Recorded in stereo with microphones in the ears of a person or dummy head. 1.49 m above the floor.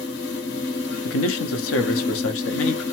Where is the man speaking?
80° left, 0.7 m.